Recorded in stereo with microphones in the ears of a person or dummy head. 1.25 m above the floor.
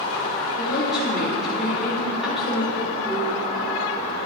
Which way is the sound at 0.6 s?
Centre (ahead or behind).